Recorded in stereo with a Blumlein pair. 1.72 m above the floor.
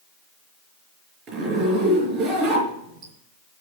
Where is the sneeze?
I don't hear a sneeze.